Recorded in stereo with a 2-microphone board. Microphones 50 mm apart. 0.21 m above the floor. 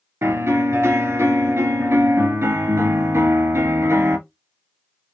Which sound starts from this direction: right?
A piano, at 0.2 s.